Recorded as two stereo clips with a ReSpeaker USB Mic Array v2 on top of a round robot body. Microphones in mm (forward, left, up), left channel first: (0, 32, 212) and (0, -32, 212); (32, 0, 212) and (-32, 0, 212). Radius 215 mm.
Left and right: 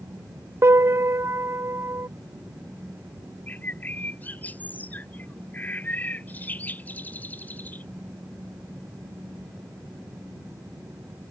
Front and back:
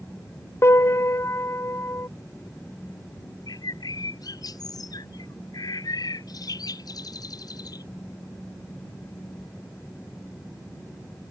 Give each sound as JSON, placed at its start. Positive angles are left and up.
{"t": 0.6, "sound": "a piano", "azimuth_deg": -45}
{"t": 3.5, "sound": "a bird", "azimuth_deg": 25}